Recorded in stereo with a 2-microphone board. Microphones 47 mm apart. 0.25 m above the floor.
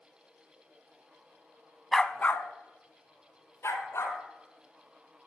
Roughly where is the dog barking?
Centre.